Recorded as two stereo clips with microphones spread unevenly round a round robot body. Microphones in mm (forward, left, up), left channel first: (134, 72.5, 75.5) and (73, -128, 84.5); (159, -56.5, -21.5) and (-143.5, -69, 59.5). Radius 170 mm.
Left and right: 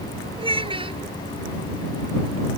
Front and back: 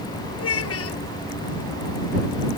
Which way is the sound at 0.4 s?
40° right.